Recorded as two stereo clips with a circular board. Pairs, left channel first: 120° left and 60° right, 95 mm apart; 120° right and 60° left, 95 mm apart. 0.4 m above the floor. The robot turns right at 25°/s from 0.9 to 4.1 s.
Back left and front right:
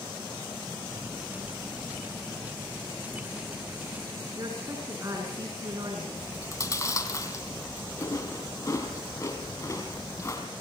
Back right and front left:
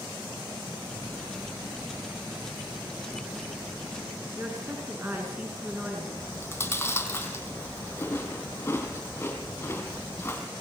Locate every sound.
4.4 s a woman speaking: 10° right, 5.5 m
6.2 s chewing: 175° left, 4 m